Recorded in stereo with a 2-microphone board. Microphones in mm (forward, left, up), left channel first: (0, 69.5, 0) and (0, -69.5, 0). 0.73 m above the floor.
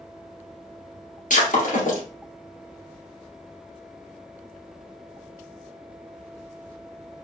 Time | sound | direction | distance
1.3 | breaking glass | 70° left (ahead or behind) | 2.5 m